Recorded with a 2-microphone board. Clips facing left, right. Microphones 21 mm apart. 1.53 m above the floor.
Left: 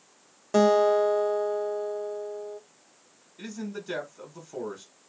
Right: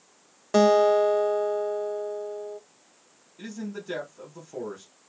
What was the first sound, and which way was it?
A guitar, 25° right (ahead or behind).